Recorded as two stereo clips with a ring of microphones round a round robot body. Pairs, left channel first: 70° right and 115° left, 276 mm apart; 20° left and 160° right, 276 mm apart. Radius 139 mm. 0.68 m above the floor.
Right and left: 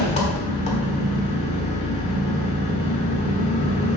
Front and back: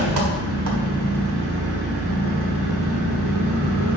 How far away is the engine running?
About 1.4 m.